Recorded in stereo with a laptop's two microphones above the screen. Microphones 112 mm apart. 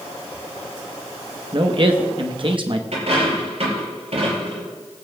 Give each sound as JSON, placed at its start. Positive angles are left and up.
{"t": 1.5, "sound": "a man speaking", "side_deg": -50, "distance_m": 0.9}
{"t": 2.9, "sound": "a dropped coin", "side_deg": -65, "distance_m": 5.5}